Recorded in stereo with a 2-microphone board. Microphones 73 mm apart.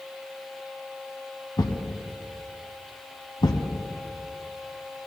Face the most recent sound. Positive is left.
turn(degrees=65)  # may be behind; listen again after turning